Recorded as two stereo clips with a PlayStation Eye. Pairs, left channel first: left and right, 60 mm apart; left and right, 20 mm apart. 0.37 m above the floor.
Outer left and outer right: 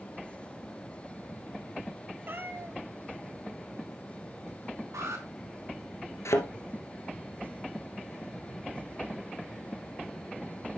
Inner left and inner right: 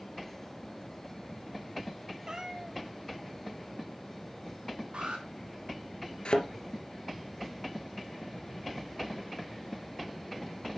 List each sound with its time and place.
2.3 s a cat meowing: 40° right (ahead or behind), 1.0 m
4.9 s an alarm: 65° right (ahead or behind), 6 m
6.2 s a thud: 55° left (ahead or behind), 2.0 m